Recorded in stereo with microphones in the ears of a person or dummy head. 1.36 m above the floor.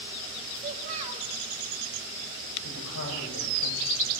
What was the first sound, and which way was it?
A child speaking, 35° right (ahead or behind).